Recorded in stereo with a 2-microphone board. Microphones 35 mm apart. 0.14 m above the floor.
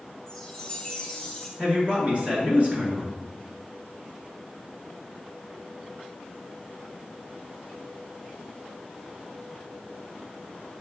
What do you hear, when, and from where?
0.3 s a chime: 15° left (ahead or behind), 1.8 m
1.6 s a man speaking: 40° right (ahead or behind), 1.8 m